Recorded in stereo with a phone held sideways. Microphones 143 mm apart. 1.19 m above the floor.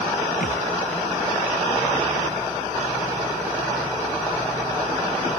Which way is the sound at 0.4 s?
85° left.